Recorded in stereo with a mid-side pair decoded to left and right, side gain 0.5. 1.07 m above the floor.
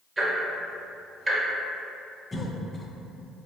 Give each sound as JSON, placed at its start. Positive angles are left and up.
{"t": 0.2, "sound": "ticking", "azimuth_deg": -30, "distance_m": 1.0}
{"t": 2.3, "sound": "a cough", "azimuth_deg": 20, "distance_m": 0.6}